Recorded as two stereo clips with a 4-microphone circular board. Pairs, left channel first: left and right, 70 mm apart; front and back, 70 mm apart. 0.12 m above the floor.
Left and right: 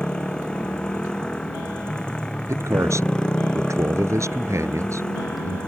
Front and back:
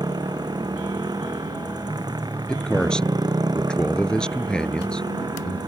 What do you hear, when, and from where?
0.0 s a motorcycle: 165° left
2.5 s a man speaking: 75° right